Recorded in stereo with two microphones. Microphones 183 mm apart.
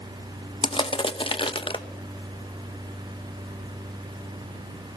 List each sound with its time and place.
0.6 s crushing: 30° left (ahead or behind), 1.0 m